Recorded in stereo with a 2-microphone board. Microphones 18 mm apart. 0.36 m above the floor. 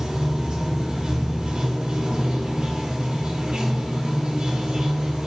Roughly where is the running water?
Right.